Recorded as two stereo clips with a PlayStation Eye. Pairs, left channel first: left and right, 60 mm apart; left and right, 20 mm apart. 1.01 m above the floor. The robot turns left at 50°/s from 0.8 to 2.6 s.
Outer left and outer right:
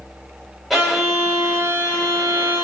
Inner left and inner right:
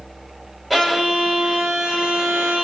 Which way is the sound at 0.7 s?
Straight ahead.